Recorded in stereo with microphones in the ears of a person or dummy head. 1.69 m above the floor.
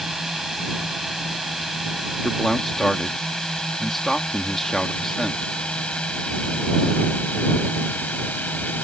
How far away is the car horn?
I don't hear a car horn.